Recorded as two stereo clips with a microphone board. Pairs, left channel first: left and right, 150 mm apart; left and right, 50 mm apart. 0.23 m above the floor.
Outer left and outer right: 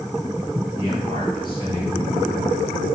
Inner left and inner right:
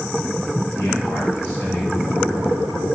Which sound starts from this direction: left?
A man speaking, at 0.8 s.